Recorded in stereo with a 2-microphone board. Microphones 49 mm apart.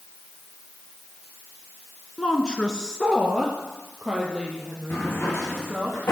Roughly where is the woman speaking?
Centre.